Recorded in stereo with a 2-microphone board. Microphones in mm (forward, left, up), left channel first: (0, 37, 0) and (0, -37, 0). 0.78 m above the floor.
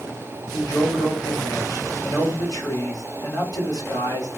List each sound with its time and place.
0.5 s a man speaking: 60° left (ahead or behind), 1.7 m